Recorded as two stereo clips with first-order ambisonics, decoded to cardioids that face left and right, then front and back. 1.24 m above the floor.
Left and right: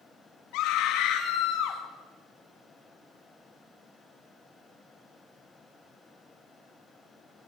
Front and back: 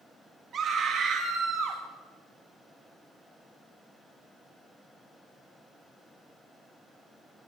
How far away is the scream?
About 1.8 m.